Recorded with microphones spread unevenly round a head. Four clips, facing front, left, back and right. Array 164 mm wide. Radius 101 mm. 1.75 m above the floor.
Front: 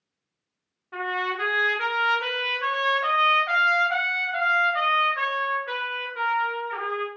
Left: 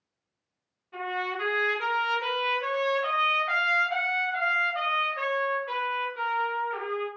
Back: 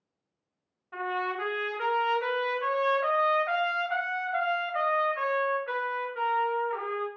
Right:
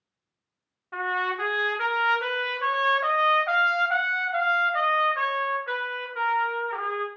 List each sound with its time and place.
0.9 s a trumpet: 105° right, 0.7 m